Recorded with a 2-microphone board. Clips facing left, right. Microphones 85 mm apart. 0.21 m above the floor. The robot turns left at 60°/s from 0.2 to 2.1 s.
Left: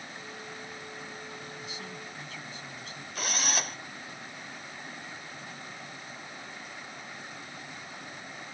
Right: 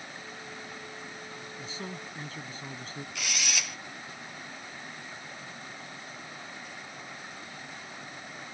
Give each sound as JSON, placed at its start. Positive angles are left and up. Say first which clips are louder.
{"t": 1.6, "sound": "a man speaking", "louder": "right 2 dB", "azimuth_deg": -55}
{"t": 3.1, "sound": "a drill", "louder": "left 4 dB", "side_deg": 40}